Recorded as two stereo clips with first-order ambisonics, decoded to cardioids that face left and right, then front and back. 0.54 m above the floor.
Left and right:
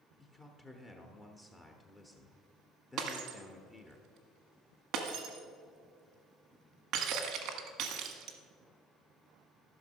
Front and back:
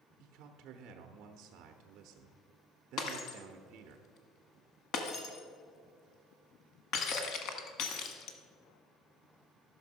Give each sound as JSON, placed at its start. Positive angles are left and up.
{"t": 0.2, "sound": "a man speaking", "azimuth_deg": 165, "distance_m": 0.8}
{"t": 3.0, "sound": "breaking glass", "azimuth_deg": -45, "distance_m": 1.3}